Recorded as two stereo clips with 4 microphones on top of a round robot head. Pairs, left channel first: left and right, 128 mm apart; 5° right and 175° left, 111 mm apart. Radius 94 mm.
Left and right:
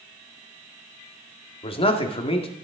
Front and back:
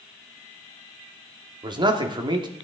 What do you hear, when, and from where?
1.6 s a man speaking: 130° left, 1.8 m